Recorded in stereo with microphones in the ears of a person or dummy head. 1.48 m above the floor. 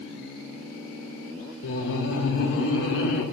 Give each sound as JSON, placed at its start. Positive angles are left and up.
{"t": 1.6, "sound": "laughter", "side_deg": 70, "distance_m": 1.4}